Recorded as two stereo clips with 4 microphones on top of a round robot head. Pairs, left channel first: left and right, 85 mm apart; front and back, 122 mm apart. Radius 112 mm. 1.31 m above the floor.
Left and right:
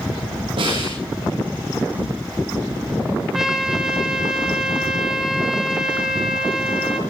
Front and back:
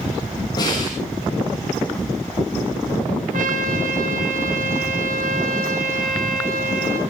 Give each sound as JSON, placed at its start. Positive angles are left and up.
{"t": 0.6, "sound": "a snare drum", "azimuth_deg": -65, "distance_m": 9.0}
{"t": 3.3, "sound": "a trumpet", "azimuth_deg": -175, "distance_m": 3.5}